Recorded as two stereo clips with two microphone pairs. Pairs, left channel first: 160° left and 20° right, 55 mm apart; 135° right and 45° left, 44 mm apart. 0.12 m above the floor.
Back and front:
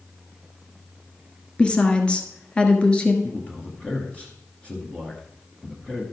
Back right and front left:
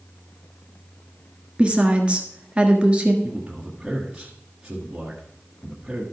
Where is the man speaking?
110° left, 1.9 m.